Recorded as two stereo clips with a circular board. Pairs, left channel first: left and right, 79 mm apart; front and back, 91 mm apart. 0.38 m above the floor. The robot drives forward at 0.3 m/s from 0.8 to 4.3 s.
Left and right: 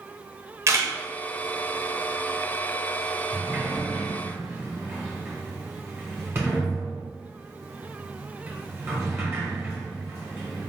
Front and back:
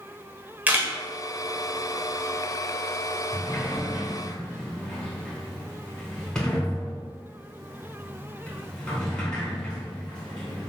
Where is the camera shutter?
115° right, 1.0 m.